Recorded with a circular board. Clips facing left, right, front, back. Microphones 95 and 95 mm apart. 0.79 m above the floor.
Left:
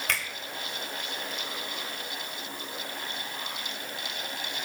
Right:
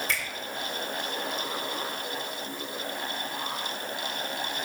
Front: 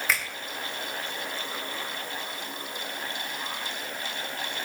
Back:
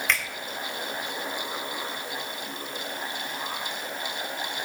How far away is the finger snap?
About 3.5 m.